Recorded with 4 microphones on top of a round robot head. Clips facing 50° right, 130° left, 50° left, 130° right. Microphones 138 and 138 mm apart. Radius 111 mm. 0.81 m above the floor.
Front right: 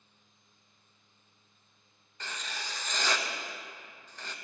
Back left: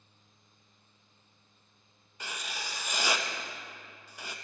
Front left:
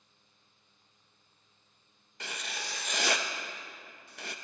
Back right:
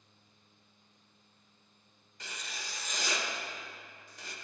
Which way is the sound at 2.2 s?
50° left.